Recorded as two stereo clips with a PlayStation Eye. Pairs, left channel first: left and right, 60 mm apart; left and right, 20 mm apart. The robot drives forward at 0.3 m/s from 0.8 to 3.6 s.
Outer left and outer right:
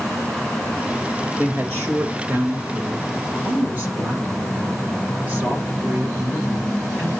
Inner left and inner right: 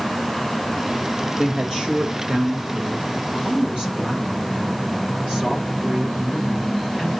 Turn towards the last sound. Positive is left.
turn(degrees=-40)  # may be behind; listen again after turning